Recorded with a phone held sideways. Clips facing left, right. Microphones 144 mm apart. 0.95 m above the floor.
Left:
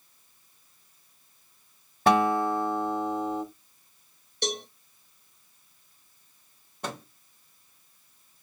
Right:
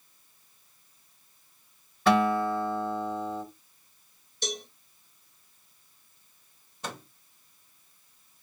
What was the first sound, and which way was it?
A guitar, 45° left (ahead or behind).